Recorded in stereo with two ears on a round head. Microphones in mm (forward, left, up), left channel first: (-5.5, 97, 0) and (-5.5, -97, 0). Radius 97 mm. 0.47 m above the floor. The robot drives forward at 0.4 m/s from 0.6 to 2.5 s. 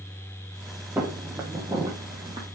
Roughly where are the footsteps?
Centre.